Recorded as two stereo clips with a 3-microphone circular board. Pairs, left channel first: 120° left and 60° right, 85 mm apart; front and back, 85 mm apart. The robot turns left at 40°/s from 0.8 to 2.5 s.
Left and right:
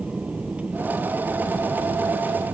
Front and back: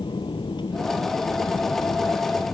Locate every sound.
0.0 s an aircraft: 15° left; by 2.5 s 55° right